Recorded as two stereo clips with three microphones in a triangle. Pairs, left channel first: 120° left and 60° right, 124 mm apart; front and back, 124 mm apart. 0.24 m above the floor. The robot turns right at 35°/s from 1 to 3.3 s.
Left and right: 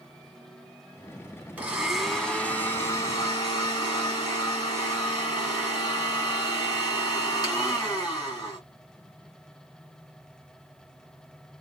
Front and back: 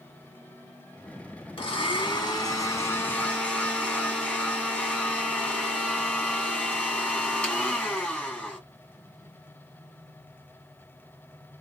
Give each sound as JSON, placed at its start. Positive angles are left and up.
{"t": 1.6, "sound": "a blender", "azimuth_deg": 15, "distance_m": 1.8}